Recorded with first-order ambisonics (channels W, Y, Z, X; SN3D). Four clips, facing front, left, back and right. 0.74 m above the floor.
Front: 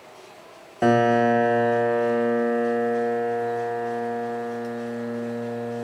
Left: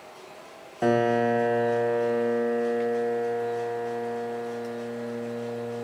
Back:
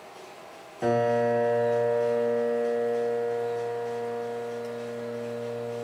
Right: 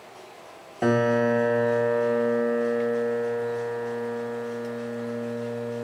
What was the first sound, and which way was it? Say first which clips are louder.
A piano: right 1 dB, front 5 dB; 10° right.